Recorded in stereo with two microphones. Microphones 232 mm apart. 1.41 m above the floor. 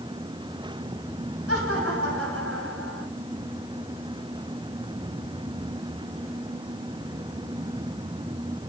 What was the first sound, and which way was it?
Laughter, 75° right (ahead or behind).